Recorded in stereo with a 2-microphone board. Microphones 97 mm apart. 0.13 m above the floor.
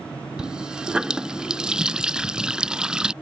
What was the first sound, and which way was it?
A running tap, 10° right (ahead or behind).